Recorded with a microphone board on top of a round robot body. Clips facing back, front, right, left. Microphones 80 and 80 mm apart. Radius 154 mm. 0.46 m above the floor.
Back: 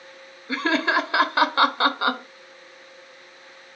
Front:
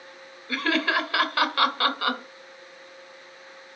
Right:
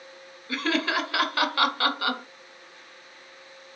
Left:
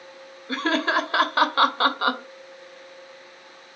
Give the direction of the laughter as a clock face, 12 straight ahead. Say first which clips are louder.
Back 3 dB, left 3 dB; 8 o'clock.